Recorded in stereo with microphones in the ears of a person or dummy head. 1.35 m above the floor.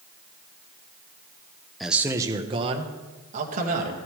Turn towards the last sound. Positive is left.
turn(degrees=-45)  # may be behind; listen again after turning